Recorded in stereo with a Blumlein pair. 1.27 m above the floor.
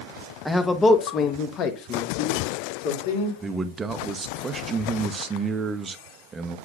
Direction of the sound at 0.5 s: 5° left.